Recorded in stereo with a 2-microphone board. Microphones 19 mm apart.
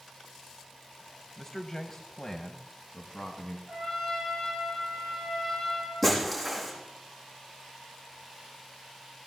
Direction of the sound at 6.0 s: 5° left (ahead or behind).